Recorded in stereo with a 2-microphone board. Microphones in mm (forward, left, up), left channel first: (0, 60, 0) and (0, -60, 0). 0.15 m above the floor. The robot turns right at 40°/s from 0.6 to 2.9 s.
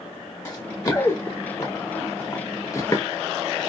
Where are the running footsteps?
25° left (ahead or behind), 0.9 m; by 3.0 s 30° left (ahead or behind), 0.9 m.